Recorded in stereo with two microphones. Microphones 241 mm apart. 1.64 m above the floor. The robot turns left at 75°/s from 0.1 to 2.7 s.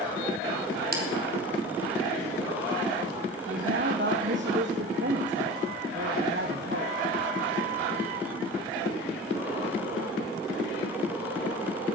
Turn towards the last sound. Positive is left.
turn(degrees=-50)  # may be behind; listen again after turning